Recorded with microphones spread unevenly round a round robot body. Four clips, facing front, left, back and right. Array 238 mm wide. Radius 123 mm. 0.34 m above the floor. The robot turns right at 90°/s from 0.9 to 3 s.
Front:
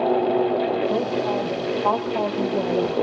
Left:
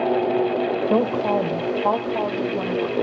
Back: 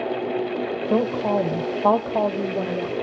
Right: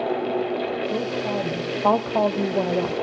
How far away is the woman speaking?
About 1.7 m.